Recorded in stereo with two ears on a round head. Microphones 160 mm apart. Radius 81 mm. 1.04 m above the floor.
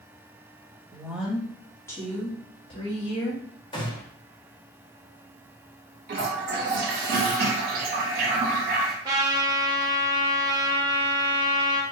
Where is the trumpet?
20° right (ahead or behind), 0.7 m.